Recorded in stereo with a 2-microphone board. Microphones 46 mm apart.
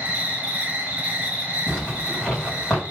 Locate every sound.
0.0 s an insect: 30° right (ahead or behind), 1.4 m
1.7 s a zipper: 15° left (ahead or behind), 2.5 m